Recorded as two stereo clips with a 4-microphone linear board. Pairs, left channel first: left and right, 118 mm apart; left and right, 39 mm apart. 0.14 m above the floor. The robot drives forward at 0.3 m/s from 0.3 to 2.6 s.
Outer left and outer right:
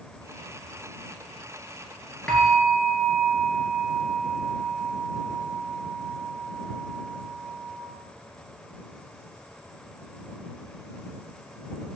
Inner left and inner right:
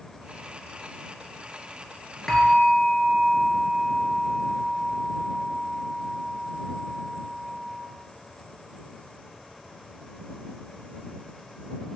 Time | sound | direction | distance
2.3 | a bell | 5° left (ahead or behind) | 0.5 m